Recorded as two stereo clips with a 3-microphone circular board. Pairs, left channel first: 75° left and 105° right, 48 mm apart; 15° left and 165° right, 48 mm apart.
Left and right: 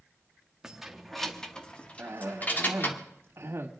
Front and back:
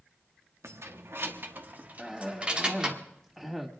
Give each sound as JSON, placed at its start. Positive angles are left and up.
{"t": 0.6, "sound": "keys jangling", "azimuth_deg": 180, "distance_m": 1.3}
{"t": 2.0, "sound": "a cough", "azimuth_deg": -70, "distance_m": 2.0}